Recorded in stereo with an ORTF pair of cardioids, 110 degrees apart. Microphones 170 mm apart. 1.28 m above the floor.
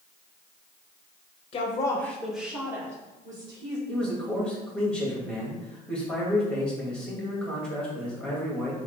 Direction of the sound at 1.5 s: 40° left.